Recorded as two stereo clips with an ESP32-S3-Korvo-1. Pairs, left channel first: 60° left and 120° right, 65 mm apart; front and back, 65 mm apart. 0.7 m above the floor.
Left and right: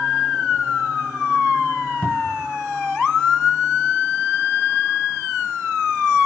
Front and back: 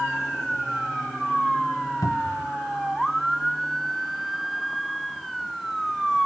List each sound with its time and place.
2.0 s a cupboard door: 10° right